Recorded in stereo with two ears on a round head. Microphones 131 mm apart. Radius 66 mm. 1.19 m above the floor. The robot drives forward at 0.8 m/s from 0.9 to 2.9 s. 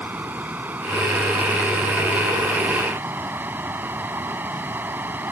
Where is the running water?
10° right (ahead or behind); by 5.3 s 15° right (ahead or behind).